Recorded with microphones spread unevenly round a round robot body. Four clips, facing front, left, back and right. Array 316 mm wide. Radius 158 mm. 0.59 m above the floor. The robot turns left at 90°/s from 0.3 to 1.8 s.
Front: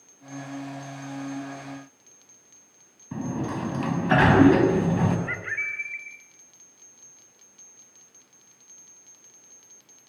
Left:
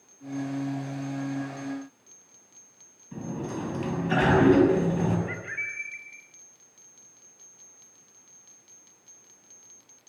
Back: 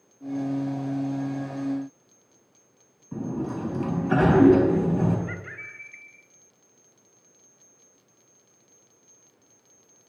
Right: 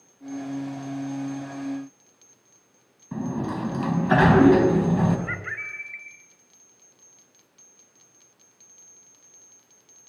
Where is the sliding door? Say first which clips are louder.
Right 5 dB, even; 40° right, 6 m.